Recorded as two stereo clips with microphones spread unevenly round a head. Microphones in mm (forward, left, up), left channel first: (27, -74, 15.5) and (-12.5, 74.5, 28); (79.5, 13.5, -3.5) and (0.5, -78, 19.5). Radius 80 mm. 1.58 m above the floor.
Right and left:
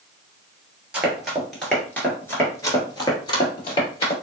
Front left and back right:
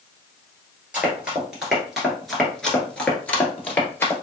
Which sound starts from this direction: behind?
Running footsteps, at 0.9 s.